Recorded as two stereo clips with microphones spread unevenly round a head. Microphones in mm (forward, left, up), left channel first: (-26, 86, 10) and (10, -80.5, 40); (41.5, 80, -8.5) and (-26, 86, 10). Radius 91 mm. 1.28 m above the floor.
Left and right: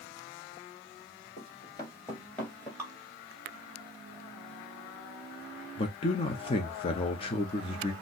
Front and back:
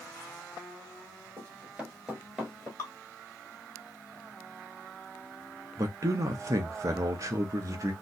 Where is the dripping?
40° right, 0.8 m.